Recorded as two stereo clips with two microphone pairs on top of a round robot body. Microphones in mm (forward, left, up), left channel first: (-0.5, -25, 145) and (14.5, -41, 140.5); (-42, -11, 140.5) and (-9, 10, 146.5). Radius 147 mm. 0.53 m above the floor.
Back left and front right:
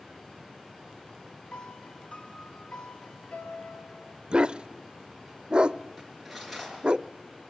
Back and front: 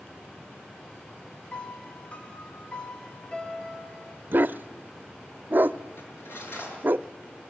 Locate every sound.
1.5 s a piano: 155° left, 2.5 m
4.3 s a dog barking: 10° right, 0.5 m
6.0 s cutlery clinking: 140° right, 7.5 m